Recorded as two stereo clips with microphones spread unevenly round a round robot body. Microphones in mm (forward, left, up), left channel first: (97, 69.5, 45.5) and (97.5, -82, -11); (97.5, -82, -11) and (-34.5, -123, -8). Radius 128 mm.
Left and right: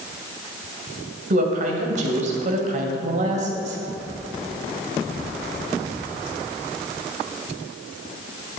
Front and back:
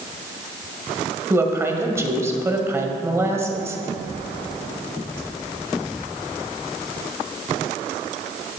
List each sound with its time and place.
1.3 s a woman speaking: 95° right, 1.9 m